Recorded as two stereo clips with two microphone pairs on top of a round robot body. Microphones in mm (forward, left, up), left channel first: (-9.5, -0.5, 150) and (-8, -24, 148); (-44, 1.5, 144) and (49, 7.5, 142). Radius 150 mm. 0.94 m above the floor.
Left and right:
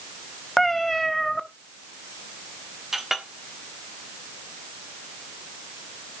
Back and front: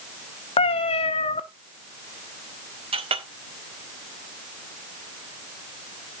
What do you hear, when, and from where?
0.6 s a cat meowing: 170° left, 0.7 m
2.9 s a clink: 10° right, 1.6 m